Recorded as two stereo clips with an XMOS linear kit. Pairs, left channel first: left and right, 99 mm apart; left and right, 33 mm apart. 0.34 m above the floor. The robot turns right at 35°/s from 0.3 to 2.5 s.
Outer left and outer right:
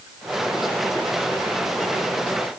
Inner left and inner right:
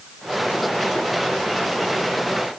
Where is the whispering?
I don't hear whispering.